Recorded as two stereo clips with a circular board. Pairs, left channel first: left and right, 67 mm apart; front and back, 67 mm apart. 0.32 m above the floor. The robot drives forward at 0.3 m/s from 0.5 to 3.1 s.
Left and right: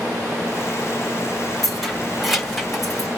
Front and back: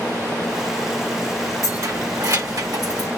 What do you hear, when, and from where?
1.6 s keys jangling: straight behind, 1.1 m